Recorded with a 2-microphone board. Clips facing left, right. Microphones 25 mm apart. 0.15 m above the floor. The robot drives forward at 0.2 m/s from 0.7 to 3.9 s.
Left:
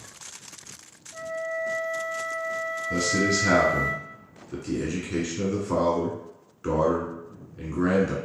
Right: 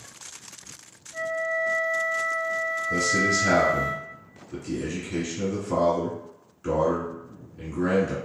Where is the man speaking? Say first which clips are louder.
Right 1 dB; 25° left (ahead or behind), 1.2 m; by 8.2 s 20° left (ahead or behind), 1.2 m.